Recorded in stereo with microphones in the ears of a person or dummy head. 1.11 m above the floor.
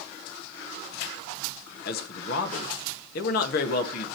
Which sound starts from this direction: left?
A man speaking, at 1.9 s.